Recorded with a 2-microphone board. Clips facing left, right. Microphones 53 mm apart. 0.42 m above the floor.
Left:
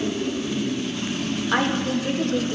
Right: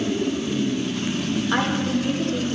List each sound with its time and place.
1.5 s a woman speaking: 5° left (ahead or behind), 1.0 m; by 2.5 s 35° left (ahead or behind), 1.5 m